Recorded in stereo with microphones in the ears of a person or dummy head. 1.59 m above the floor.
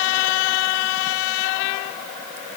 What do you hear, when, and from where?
Only background noise.